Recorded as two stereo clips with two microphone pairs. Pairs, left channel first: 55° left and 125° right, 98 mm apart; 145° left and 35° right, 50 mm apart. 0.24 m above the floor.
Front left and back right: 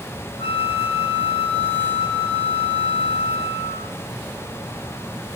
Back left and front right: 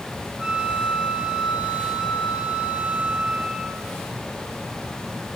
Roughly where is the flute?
Ahead left.